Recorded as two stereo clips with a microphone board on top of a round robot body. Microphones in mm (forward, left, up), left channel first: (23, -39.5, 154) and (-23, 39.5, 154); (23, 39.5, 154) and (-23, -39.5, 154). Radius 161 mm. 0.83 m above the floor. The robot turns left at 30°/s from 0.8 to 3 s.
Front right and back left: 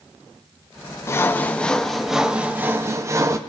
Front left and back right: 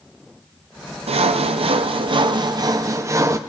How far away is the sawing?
About 0.6 m.